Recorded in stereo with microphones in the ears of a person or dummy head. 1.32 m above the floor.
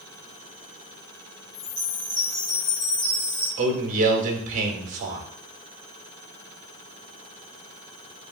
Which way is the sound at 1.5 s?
15° left (ahead or behind).